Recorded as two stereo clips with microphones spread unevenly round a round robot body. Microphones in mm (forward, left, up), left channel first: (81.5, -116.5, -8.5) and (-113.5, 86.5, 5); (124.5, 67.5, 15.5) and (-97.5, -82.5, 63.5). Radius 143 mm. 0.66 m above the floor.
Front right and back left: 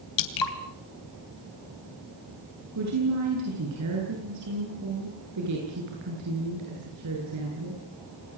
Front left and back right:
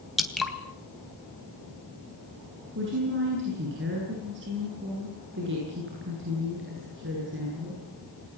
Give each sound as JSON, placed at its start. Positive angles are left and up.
{"t": 0.2, "sound": "dripping", "azimuth_deg": -55, "distance_m": 3.0}
{"t": 2.8, "sound": "a woman speaking", "azimuth_deg": 165, "distance_m": 9.5}